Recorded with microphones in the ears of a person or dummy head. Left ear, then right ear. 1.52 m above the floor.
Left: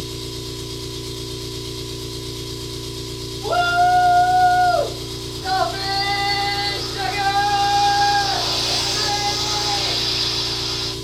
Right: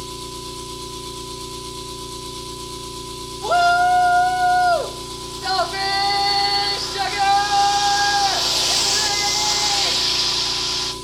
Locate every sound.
0.0 s an engine running: 45° right (ahead or behind), 1.3 m
3.4 s a shout: 75° right (ahead or behind), 0.5 m